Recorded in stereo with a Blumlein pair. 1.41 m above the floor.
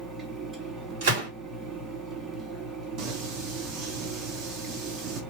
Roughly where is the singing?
Ahead right.